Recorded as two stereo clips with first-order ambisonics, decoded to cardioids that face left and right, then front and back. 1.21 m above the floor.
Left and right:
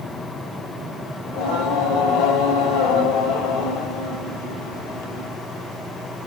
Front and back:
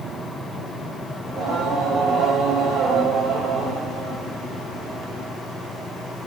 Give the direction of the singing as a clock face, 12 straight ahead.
8 o'clock.